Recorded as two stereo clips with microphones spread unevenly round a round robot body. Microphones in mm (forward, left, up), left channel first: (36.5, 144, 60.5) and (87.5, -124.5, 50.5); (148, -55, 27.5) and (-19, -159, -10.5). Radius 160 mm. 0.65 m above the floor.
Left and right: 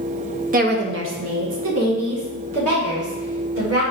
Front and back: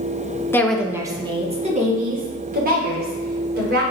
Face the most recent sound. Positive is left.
turn(degrees=-115)